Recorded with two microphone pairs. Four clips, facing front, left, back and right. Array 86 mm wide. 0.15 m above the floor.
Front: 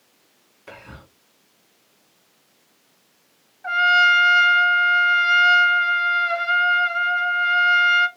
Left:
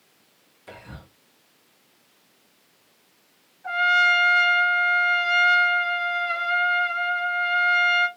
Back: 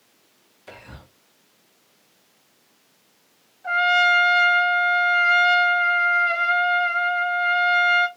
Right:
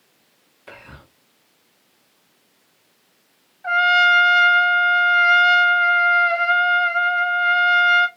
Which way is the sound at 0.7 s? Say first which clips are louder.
Right 1 dB, front 2 dB; 55° right.